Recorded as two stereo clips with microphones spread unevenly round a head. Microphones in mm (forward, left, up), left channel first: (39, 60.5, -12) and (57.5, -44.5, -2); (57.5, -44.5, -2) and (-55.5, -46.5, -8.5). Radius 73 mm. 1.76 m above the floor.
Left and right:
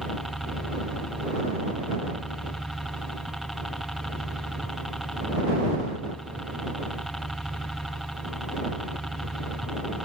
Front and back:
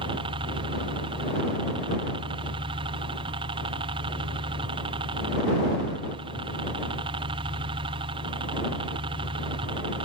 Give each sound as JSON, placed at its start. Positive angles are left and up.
{"t": 0.0, "sound": "a helicopter", "azimuth_deg": -170}